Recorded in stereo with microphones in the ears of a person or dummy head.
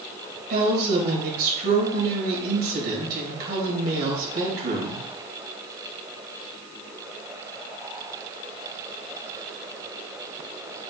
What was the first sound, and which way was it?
A woman speaking, 55° right (ahead or behind).